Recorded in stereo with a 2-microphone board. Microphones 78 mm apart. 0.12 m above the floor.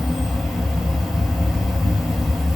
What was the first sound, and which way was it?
An insect, centre (ahead or behind).